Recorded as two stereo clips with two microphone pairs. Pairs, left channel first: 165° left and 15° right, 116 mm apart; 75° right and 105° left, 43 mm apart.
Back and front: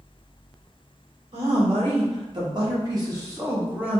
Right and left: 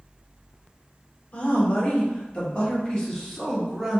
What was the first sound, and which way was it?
A woman speaking, 40° right.